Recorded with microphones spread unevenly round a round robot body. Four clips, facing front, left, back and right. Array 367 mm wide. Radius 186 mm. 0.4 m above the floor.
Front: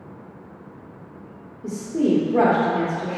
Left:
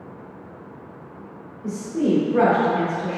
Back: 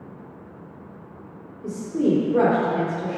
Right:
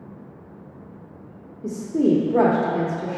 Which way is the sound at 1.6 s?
95° right.